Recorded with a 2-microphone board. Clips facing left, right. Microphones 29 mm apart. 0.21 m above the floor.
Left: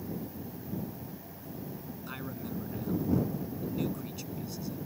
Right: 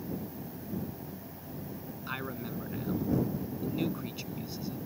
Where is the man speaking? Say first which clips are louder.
Right 3 dB; 30° right (ahead or behind).